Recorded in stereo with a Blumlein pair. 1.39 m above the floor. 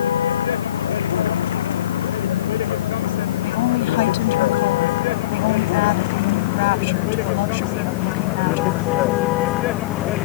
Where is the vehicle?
65° left; by 10.3 s 35° left.